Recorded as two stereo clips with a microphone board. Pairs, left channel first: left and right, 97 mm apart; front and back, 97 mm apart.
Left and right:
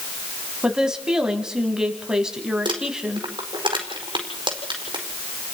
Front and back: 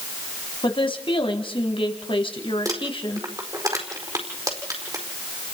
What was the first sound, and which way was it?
A woman speaking, 10° right.